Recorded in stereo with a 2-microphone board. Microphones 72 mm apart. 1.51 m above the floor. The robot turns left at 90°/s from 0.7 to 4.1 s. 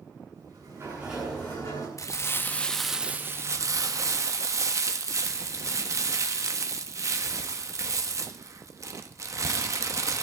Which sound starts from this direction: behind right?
A sliding door, at 0.3 s.